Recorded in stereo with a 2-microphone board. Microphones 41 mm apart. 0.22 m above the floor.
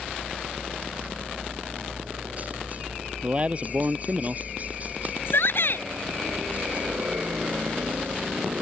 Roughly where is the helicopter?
Right.